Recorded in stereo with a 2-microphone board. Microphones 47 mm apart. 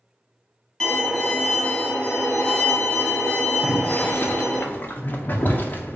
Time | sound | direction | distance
0.8 | a violin | 10° left (ahead or behind) | 1.4 m
3.6 | boiling | 40° left (ahead or behind) | 0.6 m